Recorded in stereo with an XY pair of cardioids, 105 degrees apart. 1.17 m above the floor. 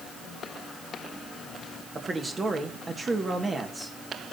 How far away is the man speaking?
About 1.8 m.